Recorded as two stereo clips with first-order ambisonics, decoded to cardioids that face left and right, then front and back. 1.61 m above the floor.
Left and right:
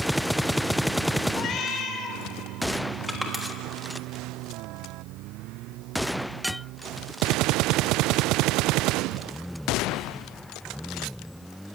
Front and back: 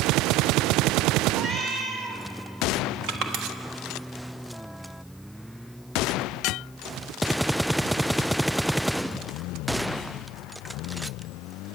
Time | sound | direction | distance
1.3 | a cat meowing | 120° left | 2 m
3.1 | crushing | straight behind | 1.4 m